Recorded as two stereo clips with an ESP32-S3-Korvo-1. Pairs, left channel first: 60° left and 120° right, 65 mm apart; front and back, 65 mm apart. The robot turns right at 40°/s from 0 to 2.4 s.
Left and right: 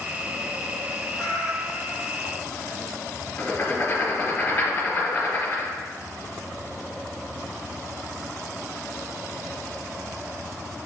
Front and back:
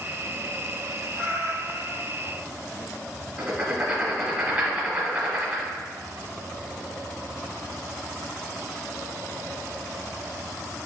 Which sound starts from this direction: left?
Writing, at 3.4 s.